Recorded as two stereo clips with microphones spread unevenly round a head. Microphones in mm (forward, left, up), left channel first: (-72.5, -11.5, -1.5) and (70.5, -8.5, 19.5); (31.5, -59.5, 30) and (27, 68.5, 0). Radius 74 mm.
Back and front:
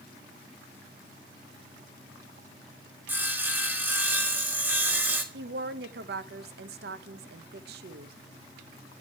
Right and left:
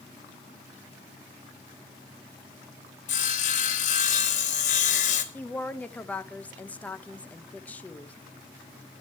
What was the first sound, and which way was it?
Sawing, 75° right.